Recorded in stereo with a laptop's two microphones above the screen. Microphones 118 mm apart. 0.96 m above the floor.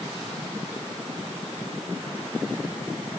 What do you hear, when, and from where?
Only background noise.